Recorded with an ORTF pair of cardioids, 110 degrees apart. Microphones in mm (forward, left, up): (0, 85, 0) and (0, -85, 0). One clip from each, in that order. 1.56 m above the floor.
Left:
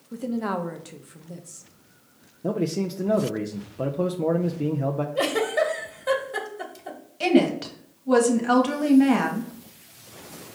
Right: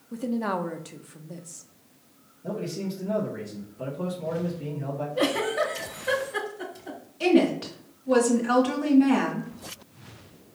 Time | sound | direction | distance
0.1 | a woman speaking | straight ahead | 0.6 m
2.4 | a man speaking | 55° left | 0.6 m
5.2 | a giggle | 45° left | 1.5 m
7.2 | a woman speaking | 30° left | 1.3 m